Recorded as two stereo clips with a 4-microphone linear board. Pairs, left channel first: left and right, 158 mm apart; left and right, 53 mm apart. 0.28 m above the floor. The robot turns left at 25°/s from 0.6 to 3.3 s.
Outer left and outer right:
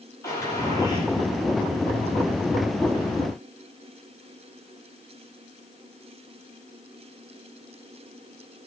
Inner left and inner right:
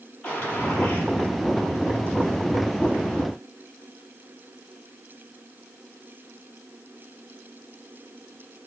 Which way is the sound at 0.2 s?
20° left (ahead or behind).